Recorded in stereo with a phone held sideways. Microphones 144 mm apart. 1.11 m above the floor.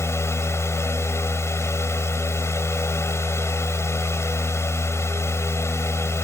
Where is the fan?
20° left (ahead or behind).